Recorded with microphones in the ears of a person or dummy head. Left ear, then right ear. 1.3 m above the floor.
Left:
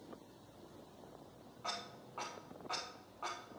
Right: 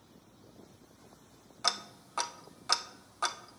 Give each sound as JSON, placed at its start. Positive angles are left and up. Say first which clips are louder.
{"t": 1.6, "sound": "ticking", "louder": "right 10 dB", "side_deg": -60, "distance_m": 0.6}